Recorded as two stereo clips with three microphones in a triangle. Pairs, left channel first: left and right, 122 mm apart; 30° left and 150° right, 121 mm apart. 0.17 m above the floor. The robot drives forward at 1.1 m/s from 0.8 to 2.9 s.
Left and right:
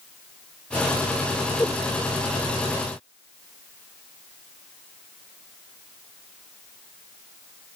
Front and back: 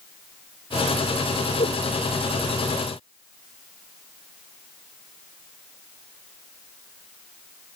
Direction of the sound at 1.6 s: 15° left.